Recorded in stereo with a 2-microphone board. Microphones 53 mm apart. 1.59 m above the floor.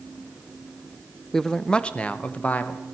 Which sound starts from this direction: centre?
A man speaking, at 1.3 s.